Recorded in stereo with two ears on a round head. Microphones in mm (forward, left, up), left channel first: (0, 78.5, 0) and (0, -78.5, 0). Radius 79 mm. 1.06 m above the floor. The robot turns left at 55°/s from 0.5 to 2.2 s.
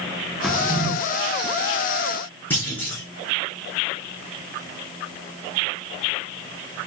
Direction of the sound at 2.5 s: 10° left (ahead or behind).